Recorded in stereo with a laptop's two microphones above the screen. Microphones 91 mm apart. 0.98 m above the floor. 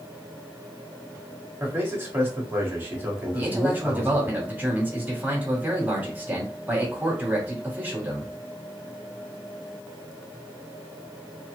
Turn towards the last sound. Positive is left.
turn(degrees=-20)  # may be behind; listen again after turning